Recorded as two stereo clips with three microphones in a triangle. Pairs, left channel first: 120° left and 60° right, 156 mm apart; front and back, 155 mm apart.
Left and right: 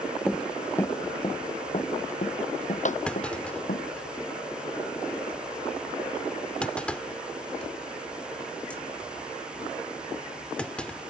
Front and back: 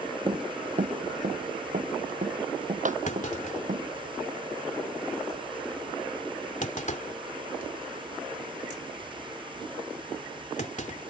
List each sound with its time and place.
0.3 s running footsteps: 150° right; by 3.9 s 145° left
3.1 s a clunk: 35° left